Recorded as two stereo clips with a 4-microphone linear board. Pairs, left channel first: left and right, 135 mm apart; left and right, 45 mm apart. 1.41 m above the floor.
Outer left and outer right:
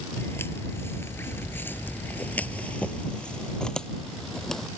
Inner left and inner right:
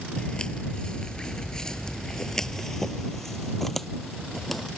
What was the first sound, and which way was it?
Footsteps, 20° left (ahead or behind).